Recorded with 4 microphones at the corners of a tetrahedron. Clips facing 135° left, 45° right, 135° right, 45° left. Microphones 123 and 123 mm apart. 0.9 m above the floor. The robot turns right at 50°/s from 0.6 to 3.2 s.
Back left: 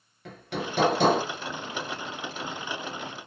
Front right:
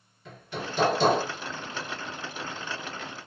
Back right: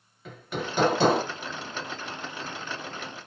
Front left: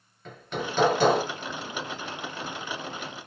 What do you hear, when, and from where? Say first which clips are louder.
0.2 s hammering: back left 3 dB, front left 1 dB; 140° left, 1.1 m; by 1.2 s 170° left, 1.1 m